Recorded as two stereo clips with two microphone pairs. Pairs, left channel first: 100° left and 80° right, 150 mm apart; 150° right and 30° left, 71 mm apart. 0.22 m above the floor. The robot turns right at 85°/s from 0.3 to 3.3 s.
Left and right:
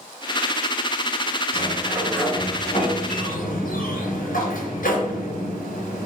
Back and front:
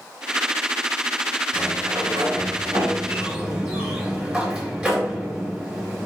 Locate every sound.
1.5 s a sliding door: 45° right, 3.5 m; by 6.1 s 105° left, 3.5 m